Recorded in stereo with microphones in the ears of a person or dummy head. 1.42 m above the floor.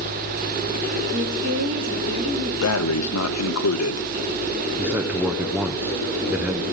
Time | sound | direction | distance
1.1 | a woman speaking | 50° right (ahead or behind) | 3 m
2.6 | breathing | 75° left (ahead or behind) | 0.7 m
4.8 | a man speaking | 10° right (ahead or behind) | 0.6 m